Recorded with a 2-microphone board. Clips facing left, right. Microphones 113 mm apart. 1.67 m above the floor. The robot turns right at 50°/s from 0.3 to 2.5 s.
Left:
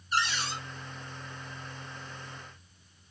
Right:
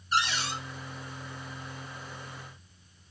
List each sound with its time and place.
0.1 s a cupboard door: 75° right (ahead or behind), 1.6 m; by 0.6 s 65° right (ahead or behind), 1.6 m